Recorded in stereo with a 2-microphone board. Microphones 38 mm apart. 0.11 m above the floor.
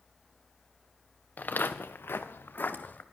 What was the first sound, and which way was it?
Footsteps, 45° left (ahead or behind).